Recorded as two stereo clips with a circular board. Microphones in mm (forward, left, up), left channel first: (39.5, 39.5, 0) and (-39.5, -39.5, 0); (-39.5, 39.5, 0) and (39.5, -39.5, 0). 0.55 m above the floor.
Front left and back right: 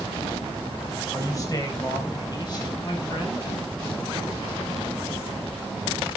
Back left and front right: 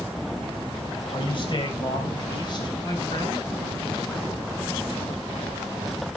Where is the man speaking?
100° left, 3 m; by 3.5 s 90° left, 4.5 m.